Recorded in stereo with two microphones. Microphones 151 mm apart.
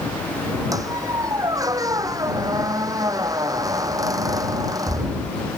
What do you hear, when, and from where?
0.7 s a squeak: 20° right (ahead or behind)